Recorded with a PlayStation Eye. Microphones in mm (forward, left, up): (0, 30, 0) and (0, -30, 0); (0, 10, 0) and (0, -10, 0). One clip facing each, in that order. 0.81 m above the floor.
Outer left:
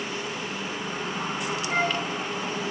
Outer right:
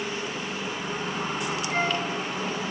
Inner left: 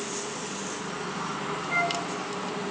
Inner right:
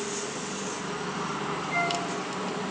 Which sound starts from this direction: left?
A flute, at 1.7 s.